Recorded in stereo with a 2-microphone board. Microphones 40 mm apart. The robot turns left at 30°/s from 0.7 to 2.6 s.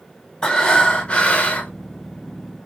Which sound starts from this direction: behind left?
Breathing, at 0.4 s.